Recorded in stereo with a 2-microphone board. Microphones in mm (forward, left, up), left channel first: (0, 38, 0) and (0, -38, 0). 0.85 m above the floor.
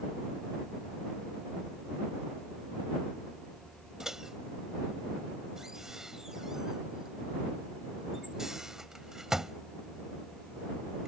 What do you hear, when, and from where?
4.0 s a microwave: 10° right (ahead or behind)